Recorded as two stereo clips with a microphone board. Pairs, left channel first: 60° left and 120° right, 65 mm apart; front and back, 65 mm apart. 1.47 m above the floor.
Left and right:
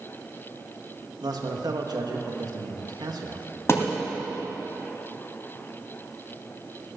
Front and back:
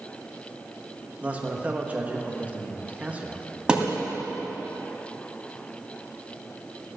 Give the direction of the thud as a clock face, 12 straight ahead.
8 o'clock.